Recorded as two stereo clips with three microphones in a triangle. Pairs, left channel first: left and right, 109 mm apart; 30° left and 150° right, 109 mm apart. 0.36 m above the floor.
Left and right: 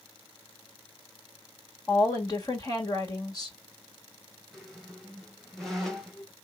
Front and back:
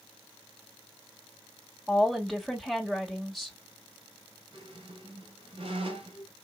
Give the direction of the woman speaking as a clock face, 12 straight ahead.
8 o'clock.